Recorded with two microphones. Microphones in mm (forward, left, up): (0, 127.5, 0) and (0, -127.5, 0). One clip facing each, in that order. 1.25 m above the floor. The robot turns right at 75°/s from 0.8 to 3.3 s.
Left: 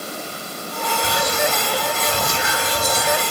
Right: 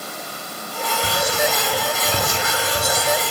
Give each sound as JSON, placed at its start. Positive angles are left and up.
{"t": 1.0, "sound": "whispering", "azimuth_deg": -150, "distance_m": 2.5}